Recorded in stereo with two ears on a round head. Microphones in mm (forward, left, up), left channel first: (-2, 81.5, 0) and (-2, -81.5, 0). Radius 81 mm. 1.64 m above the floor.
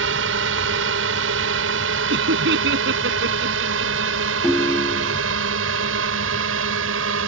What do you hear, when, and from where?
0.0 s a drone: 75° right (ahead or behind); by 7.3 s 80° right
2.1 s laughter: 70° right (ahead or behind)
4.4 s a ringtone: centre (ahead or behind)